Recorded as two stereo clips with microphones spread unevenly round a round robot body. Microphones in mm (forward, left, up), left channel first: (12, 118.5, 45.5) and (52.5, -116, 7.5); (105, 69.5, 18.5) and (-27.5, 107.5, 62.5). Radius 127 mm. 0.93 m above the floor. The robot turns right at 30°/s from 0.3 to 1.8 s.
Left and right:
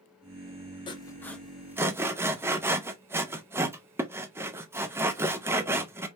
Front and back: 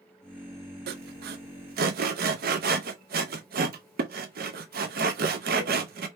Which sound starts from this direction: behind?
Sawing, at 0.9 s.